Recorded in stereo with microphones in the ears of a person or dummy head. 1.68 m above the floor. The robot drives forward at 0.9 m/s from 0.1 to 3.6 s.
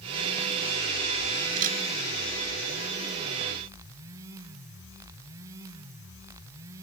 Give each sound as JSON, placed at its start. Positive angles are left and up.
{"t": 1.6, "sound": "a camera shutter", "side_deg": -50}